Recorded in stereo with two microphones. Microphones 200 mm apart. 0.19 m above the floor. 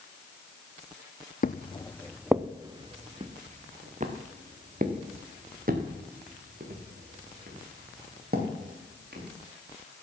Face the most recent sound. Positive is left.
turn(degrees=-50)  # may be behind; listen again after turning